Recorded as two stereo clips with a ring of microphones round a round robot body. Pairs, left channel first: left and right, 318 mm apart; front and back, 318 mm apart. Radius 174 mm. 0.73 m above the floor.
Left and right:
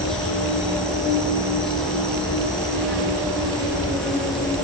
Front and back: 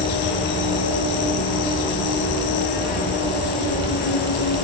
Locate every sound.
0.0 s an insect: straight ahead, 5 m